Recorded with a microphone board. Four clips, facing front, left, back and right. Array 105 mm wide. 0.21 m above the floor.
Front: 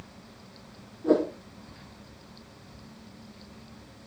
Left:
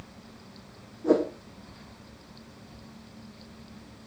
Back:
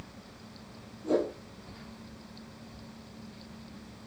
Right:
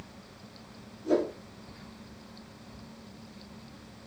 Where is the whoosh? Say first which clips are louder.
Left 4 dB, front 5 dB; 55° left, 3.5 m.